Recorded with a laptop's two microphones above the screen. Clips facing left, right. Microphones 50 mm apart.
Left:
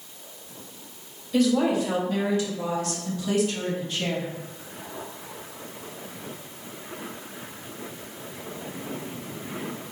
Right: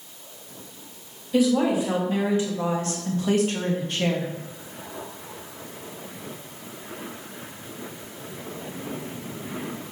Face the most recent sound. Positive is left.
turn(degrees=-55)  # may be behind; listen again after turning